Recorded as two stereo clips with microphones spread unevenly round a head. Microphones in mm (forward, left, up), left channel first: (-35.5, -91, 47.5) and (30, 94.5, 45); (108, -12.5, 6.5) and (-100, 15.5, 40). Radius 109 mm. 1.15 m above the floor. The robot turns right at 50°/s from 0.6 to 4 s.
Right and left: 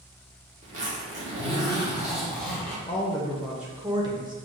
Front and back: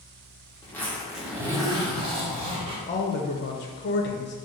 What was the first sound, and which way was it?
A zipper, 75° left.